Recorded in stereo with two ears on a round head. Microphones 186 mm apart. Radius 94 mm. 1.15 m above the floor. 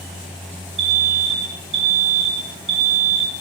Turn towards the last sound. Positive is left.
turn(degrees=-30)  # may be behind; listen again after turning